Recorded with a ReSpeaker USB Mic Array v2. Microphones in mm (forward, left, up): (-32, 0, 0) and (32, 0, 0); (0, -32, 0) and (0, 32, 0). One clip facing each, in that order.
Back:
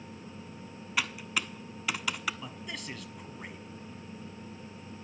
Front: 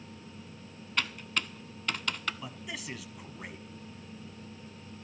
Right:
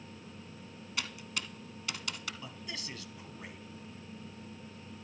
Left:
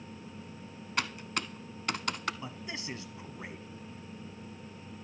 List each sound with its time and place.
1.0 s typing on a keyboard: 100° left, 0.5 m
2.4 s a man speaking: 80° left, 1.1 m